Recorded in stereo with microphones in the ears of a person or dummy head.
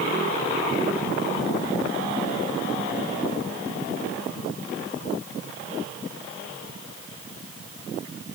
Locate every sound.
Only background noise.